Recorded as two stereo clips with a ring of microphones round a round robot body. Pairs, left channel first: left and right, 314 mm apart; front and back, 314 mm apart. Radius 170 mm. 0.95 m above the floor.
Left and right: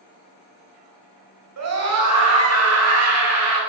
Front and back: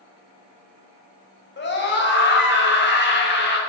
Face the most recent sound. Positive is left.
turn(degrees=-55)